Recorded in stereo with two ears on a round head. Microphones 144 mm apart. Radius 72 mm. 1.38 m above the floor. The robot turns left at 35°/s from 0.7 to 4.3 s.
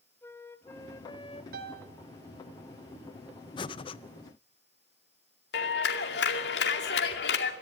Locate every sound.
0.2 s a flute: 15° left (ahead or behind), 1.1 m; by 1.4 s 35° left (ahead or behind), 1.1 m
1.5 s a piano: 60° right (ahead or behind), 2 m; by 1.9 s 70° right (ahead or behind), 2 m
3.6 s breathing: 30° left (ahead or behind), 0.5 m; by 4.0 s 35° left (ahead or behind), 0.5 m
5.5 s a clap: 75° left (ahead or behind), 2.5 m